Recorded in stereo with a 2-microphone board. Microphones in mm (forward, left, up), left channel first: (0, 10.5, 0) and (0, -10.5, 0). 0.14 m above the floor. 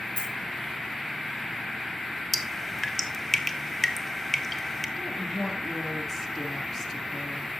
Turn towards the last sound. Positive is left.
turn(degrees=15)  # may be behind; listen again after turning